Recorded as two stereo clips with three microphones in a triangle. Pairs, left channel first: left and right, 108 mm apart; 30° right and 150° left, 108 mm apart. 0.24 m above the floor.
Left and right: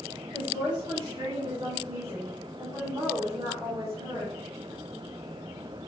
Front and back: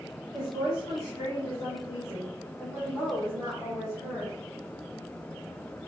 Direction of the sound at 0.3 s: 70° right.